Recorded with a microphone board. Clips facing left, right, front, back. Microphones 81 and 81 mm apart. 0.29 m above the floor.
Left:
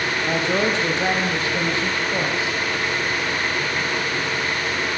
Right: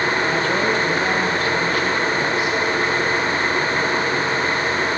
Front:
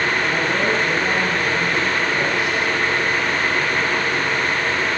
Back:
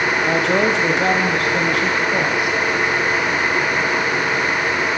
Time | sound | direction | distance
0.3 | a woman speaking | 165° left | 7.5 m